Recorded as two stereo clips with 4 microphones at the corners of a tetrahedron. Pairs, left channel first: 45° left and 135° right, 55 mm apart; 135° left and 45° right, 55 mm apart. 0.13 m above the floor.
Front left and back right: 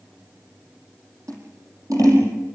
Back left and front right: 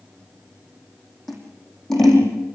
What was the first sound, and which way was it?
Scissors, 140° right.